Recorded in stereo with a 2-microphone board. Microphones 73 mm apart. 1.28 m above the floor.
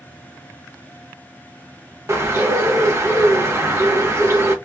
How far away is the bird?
About 1.3 m.